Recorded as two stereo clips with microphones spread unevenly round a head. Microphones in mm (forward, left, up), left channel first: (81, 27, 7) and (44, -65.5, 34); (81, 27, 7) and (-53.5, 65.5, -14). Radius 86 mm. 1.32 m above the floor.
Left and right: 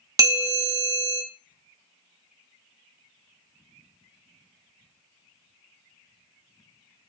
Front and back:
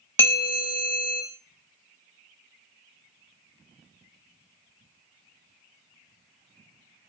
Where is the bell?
85° right, 0.6 m.